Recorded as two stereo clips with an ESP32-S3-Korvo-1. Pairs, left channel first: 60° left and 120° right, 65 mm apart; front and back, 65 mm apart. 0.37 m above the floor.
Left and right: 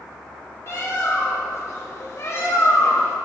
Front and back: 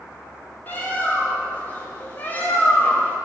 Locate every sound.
0.7 s a bird: 50° left, 1.3 m